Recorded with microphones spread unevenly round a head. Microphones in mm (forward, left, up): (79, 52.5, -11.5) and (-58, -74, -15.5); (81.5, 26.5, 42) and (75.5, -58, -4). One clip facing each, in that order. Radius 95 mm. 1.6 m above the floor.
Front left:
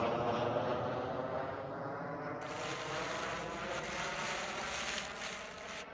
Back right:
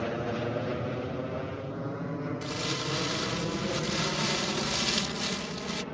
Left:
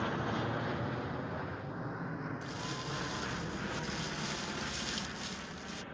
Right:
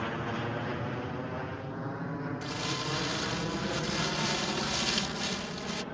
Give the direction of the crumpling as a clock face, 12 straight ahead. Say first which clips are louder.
Back right 8 dB, right 6 dB; 5 o'clock.